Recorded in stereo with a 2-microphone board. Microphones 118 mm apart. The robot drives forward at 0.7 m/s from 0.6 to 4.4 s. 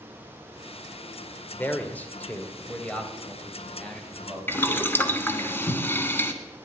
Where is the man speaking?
15° left (ahead or behind), 1.5 m; by 5.5 s 5° left (ahead or behind), 3.5 m.